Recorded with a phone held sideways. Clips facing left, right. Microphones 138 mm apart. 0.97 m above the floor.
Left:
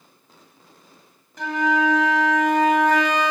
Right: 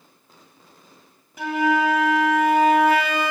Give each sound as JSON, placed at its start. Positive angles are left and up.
{"t": 1.4, "sound": "a flute", "side_deg": -10, "distance_m": 1.5}